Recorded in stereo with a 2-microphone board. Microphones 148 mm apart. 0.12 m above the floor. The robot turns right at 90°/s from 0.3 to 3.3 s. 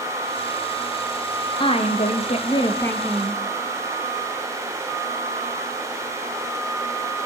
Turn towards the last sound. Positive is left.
turn(degrees=-160)